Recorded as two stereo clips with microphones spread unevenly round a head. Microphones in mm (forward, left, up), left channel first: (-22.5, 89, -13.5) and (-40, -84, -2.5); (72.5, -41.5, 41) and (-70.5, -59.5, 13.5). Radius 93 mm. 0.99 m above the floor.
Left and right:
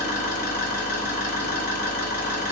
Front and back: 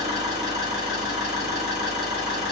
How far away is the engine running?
About 1.9 m.